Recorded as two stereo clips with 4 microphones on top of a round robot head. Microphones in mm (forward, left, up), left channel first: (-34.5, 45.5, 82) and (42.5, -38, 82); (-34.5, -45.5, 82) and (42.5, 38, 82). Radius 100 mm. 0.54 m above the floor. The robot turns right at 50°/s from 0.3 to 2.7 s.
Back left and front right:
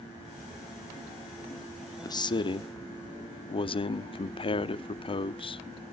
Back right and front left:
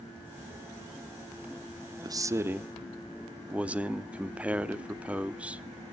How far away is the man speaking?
About 0.9 m.